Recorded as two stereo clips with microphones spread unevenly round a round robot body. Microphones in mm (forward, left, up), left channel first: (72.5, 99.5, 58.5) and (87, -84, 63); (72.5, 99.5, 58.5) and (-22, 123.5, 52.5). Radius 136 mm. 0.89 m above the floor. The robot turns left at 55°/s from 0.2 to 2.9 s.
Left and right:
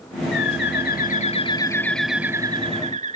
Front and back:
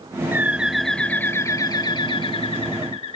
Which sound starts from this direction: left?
A bird, at 0.3 s.